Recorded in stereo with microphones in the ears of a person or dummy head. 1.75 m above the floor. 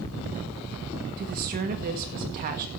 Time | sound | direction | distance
1.2 | a woman speaking | 45° right (ahead or behind) | 1.7 m